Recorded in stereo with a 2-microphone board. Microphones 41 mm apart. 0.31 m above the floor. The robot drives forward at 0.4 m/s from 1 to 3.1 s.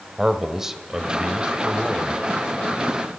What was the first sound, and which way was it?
A man speaking, 10° right (ahead or behind).